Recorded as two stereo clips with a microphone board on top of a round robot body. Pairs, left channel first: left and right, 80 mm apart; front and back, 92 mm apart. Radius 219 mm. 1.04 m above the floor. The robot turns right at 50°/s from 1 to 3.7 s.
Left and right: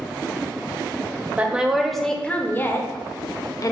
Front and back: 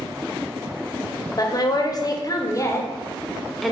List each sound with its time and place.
1.4 s a woman speaking: 25° right, 0.8 m; by 3.7 s 90° left, 0.8 m